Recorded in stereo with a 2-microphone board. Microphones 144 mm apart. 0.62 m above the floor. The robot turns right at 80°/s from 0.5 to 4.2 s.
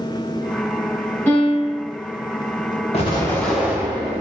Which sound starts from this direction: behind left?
An explosion, at 2.9 s.